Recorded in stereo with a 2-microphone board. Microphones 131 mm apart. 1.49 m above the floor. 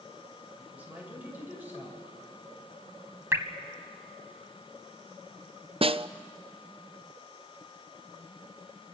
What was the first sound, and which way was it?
A woman speaking, 15° right (ahead or behind).